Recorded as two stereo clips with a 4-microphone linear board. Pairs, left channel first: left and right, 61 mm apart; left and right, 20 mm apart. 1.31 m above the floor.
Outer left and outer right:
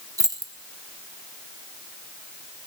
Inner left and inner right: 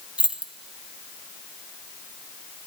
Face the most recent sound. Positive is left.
turn(degrees=-70)  # may be behind; listen again after turning